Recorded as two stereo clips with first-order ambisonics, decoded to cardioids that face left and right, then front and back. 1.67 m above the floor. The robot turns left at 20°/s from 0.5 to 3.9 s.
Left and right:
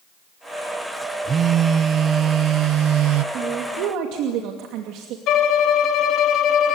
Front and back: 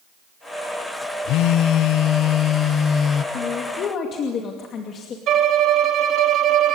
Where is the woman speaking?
45° right, 2.5 m; by 5.2 s 60° right, 2.5 m.